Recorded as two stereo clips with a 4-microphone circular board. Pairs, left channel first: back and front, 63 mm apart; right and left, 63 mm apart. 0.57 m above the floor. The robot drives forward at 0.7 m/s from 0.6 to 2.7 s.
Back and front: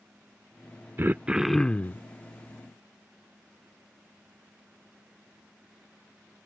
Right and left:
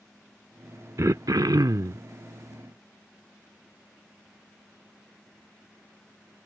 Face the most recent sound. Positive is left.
turn(degrees=150)